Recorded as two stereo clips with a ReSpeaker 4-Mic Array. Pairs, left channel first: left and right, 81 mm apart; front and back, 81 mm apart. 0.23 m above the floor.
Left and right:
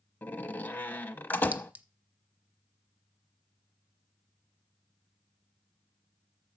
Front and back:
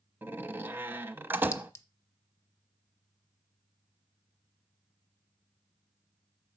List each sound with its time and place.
0.2 s a door slam: 140° left, 0.8 m
1.5 s a clink: 35° right, 1.0 m